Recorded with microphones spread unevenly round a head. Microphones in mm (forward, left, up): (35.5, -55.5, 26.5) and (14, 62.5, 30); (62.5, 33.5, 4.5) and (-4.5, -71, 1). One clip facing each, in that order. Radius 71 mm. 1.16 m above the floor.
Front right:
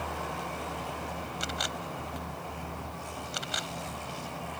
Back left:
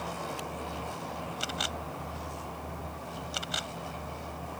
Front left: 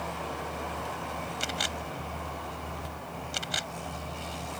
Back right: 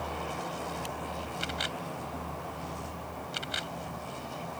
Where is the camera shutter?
15° left.